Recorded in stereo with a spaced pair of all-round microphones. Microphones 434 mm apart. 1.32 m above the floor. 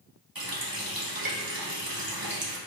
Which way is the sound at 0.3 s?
50° right (ahead or behind).